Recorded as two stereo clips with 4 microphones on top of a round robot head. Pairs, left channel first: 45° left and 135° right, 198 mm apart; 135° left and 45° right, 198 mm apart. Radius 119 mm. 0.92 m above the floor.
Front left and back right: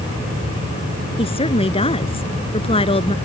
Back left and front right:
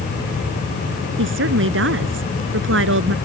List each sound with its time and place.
1.2 s a woman speaking: 20° right